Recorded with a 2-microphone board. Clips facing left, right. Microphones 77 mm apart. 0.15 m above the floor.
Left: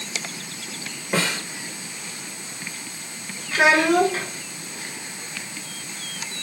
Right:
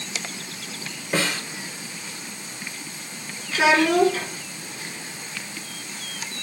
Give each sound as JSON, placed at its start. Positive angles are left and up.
{"t": 1.1, "sound": "a snare drum", "side_deg": 15, "distance_m": 2.0}
{"t": 3.5, "sound": "a child speaking", "side_deg": 50, "distance_m": 1.7}